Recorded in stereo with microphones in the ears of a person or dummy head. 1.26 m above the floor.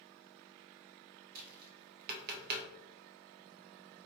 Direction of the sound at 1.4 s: 50° right (ahead or behind).